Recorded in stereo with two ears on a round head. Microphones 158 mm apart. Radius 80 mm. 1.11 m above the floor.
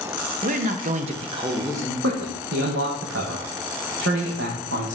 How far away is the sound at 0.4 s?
About 0.8 m.